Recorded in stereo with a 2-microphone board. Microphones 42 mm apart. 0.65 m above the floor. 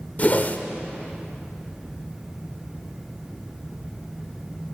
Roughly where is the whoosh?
Left.